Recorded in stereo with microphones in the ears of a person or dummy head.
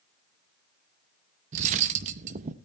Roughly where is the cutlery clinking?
Right.